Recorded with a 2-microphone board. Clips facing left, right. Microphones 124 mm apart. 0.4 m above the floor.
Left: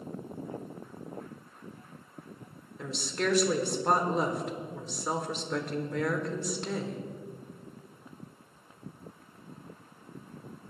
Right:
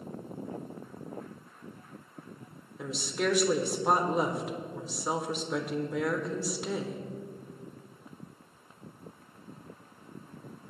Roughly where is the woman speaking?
Centre.